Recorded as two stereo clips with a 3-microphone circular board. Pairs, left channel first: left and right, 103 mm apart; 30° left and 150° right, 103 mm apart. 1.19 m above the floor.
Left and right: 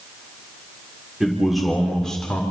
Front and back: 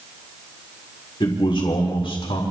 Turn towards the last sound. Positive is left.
turn(degrees=10)